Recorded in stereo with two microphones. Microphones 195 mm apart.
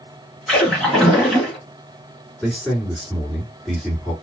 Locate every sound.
0.5 s a splash: centre (ahead or behind), 1.6 m
2.4 s a man speaking: centre (ahead or behind), 1.8 m